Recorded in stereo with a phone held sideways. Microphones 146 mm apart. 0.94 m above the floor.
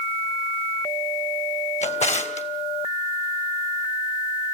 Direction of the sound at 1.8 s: 55° left (ahead or behind).